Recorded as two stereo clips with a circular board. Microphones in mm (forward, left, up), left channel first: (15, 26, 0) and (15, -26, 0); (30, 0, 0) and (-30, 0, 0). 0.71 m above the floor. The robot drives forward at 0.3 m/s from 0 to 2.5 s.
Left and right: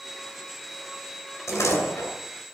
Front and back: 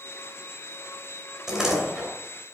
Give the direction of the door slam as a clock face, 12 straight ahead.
9 o'clock.